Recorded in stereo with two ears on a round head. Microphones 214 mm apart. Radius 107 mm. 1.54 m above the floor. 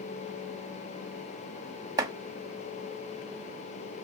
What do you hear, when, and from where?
2.0 s chopping: 15° right (ahead or behind), 0.9 m